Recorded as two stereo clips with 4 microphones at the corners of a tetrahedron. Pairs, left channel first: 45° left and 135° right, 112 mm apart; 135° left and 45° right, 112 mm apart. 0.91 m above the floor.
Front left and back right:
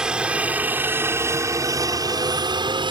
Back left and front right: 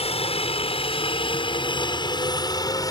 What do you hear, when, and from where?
0.0 s a helicopter: 145° left; by 2.9 s 170° right